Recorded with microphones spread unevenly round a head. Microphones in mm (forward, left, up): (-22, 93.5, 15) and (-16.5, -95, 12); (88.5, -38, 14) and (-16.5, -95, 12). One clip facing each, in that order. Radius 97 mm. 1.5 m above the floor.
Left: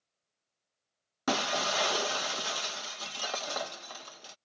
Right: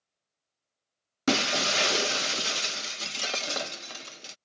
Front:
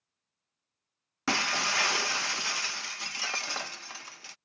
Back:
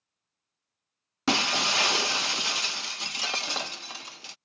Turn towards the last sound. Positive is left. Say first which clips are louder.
# right 4 dB, back 4 dB
turn(degrees=-110)